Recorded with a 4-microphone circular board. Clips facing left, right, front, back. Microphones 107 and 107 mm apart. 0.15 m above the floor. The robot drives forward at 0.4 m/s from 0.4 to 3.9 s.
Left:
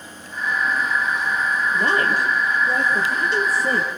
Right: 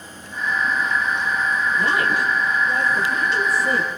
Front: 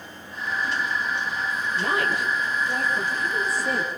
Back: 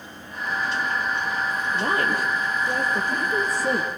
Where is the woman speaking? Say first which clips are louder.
Left 2 dB, back 1 dB; 130° left, 5.5 m; by 3.9 s 140° left, 6 m.